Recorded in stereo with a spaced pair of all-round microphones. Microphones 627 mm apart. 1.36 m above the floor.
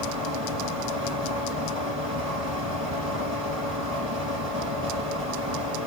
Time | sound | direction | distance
0.0 | a fan | 35° right (ahead or behind) | 4 m